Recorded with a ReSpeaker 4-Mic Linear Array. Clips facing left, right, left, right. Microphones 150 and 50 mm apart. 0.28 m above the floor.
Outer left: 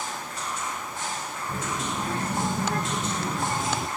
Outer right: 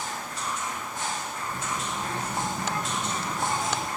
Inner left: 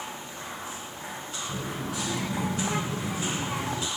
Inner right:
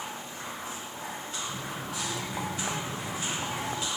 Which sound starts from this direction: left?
A child speaking, at 1.5 s.